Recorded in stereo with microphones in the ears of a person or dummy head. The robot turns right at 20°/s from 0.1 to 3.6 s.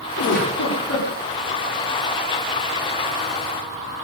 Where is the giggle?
60° left (ahead or behind), 3.5 m; by 1.1 s 80° left, 3.5 m.